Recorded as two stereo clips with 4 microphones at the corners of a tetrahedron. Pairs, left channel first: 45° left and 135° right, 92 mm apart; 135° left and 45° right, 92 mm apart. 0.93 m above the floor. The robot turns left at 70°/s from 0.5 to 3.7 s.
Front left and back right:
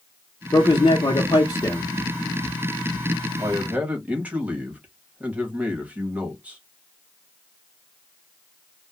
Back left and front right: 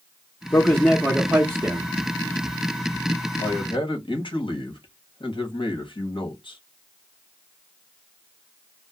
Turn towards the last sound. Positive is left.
turn(degrees=150)